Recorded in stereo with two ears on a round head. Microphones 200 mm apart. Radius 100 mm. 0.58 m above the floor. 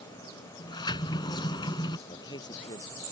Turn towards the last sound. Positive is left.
turn(degrees=20)  # may be behind; listen again after turning